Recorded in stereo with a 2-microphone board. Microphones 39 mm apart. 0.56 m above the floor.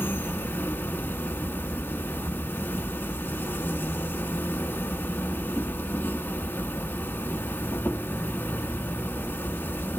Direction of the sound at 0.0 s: 65° left (ahead or behind).